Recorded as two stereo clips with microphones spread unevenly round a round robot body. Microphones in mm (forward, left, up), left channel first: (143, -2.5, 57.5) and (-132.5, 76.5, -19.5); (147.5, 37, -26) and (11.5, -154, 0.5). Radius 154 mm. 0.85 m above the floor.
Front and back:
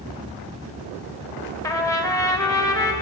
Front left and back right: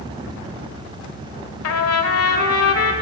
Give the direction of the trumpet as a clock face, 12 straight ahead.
10 o'clock.